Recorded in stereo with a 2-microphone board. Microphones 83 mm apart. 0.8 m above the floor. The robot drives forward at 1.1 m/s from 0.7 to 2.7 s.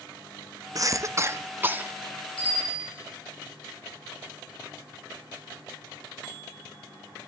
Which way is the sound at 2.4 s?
85° left.